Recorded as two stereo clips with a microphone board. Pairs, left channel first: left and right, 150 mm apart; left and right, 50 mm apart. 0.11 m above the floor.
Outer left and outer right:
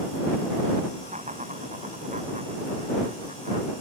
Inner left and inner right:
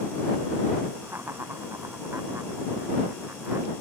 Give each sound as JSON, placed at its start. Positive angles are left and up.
{"t": 1.0, "sound": "laughter", "side_deg": -50}